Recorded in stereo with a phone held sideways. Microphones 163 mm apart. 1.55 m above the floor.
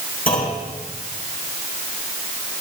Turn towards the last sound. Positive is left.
turn(degrees=60)  # may be behind; listen again after turning